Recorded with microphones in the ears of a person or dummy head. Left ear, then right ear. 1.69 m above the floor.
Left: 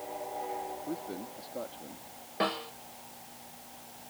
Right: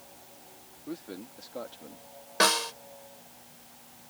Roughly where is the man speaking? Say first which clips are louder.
Left 3 dB; right.